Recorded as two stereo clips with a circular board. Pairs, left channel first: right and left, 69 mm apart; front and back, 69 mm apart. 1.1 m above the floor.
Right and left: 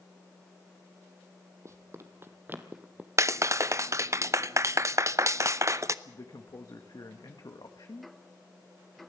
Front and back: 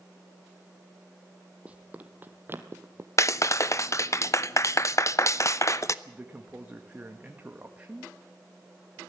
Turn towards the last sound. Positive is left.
turn(degrees=-115)